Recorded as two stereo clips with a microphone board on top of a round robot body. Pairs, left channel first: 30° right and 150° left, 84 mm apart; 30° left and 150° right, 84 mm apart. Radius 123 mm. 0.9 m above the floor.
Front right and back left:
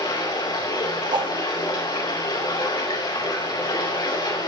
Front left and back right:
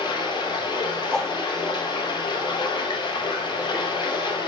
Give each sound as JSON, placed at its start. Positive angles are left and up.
{"t": 0.0, "sound": "running water", "azimuth_deg": 0, "distance_m": 5.0}
{"t": 1.1, "sound": "a whoosh", "azimuth_deg": 115, "distance_m": 1.4}